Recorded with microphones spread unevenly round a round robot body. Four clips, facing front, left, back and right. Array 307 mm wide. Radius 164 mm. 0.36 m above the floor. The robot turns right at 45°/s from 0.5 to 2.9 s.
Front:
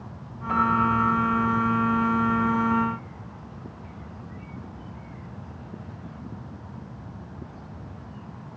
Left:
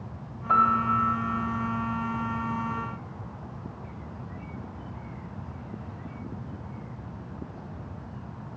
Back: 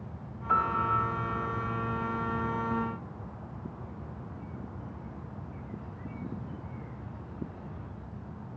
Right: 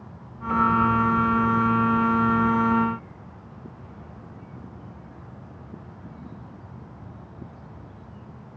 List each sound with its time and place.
0.5 s a piano: 50° left, 4 m; by 1.0 s 75° left, 4 m